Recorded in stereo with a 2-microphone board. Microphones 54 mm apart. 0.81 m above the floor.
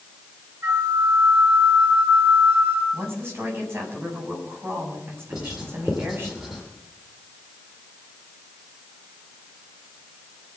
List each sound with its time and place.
0.6 s a flute: 65° right (ahead or behind), 4.5 m
2.9 s a woman speaking: 50° right (ahead or behind), 7 m
5.3 s writing: 10° right (ahead or behind), 5.5 m